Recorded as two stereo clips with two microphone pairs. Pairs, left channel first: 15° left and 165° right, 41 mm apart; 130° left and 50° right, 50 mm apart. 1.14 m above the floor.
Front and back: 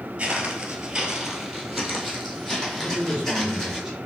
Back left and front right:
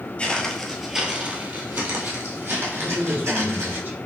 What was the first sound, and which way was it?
Footsteps, 175° left.